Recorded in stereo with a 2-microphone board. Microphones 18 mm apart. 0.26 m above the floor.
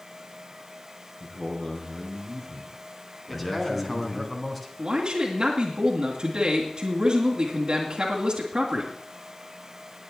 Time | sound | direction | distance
1.2 | a man speaking | 45° left (ahead or behind) | 4.5 m
3.3 | a man speaking | centre (ahead or behind) | 2.5 m
4.8 | a man speaking | 45° right (ahead or behind) | 2.5 m